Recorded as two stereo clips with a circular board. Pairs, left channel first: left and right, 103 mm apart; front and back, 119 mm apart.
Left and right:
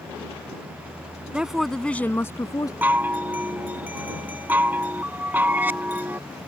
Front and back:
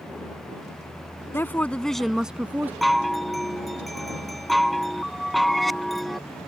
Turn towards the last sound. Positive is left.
turn(degrees=-90)